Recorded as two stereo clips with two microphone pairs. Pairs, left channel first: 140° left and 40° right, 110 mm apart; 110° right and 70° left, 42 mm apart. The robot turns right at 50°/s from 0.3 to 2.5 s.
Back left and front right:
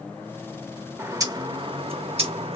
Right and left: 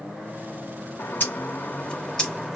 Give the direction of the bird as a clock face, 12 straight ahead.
3 o'clock.